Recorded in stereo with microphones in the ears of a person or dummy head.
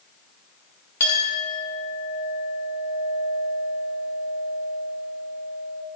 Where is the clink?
10° left (ahead or behind), 1.3 m.